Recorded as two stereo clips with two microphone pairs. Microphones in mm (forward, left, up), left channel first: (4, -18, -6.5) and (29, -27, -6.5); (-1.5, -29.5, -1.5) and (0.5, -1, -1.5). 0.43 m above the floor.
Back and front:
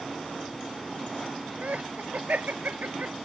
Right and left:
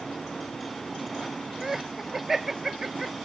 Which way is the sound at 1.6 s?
10° left.